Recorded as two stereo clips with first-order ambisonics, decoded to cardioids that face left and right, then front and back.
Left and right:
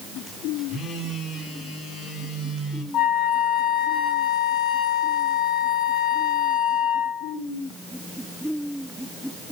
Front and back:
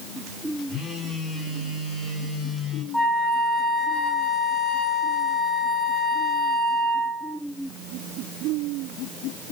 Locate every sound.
0.7 s a phone buzzing: 55° left, 1.8 m
2.9 s a flute: 90° left, 1.5 m